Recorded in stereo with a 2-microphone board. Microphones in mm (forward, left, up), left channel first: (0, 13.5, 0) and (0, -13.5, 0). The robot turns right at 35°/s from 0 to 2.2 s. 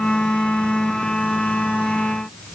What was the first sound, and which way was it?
Only background noise.